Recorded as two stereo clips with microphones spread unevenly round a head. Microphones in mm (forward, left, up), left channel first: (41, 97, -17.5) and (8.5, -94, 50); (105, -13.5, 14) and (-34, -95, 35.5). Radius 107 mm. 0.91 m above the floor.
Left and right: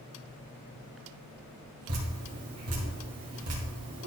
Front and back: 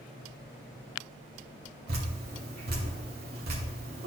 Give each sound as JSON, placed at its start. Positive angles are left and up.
{"t": 1.9, "sound": "dripping", "azimuth_deg": -125, "distance_m": 2.5}